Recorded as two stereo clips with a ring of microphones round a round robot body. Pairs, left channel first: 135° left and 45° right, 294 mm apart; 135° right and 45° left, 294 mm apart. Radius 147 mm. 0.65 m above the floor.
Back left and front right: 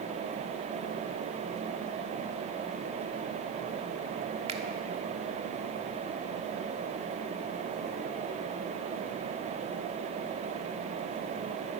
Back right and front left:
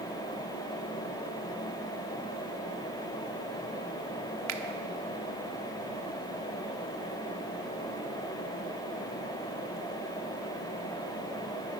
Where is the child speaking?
I don't hear a child speaking.